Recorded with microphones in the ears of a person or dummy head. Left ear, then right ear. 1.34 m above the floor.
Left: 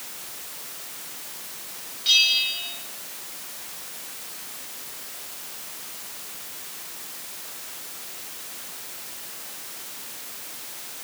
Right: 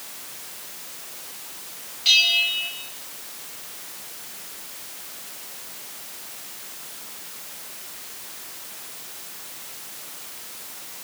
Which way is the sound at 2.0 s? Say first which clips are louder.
Right 2 dB; 35° right (ahead or behind).